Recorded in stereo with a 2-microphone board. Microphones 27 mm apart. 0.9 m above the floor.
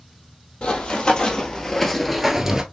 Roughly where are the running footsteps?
Left.